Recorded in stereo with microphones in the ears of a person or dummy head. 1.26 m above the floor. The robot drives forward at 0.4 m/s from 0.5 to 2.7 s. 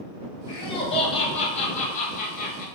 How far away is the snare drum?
No snare drum in this recording.